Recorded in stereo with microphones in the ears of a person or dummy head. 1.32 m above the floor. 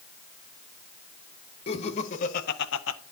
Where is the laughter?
30° left (ahead or behind), 2.5 m; by 3.0 s 70° left (ahead or behind), 1.0 m.